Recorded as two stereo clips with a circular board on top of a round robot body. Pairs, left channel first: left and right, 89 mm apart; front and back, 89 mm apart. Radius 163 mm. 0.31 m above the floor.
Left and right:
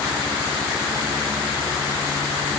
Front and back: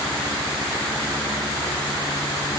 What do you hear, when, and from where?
Only background noise.